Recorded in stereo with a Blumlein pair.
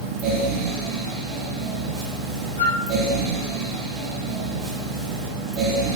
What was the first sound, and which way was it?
A fan, 35° right.